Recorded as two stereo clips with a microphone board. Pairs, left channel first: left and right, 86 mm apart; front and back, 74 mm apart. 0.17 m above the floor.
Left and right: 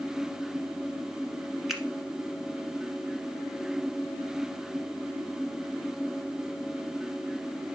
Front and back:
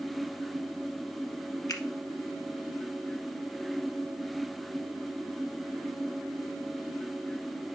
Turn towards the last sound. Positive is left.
turn(degrees=0)